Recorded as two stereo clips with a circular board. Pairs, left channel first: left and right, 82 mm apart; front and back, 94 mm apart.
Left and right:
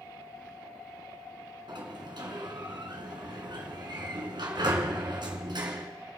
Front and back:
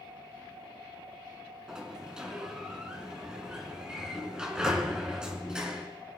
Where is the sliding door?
100° right, 1.9 m.